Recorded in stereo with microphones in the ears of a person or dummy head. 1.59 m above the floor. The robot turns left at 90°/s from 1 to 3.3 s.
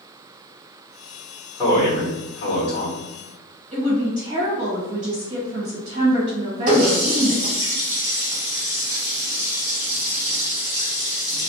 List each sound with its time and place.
1.6 s a man speaking: 170° left, 1.1 m; by 3.0 s 40° left, 1.1 m
3.7 s a woman speaking: 40° right (ahead or behind), 1.5 m
6.7 s a running tap: 40° right (ahead or behind), 1.3 m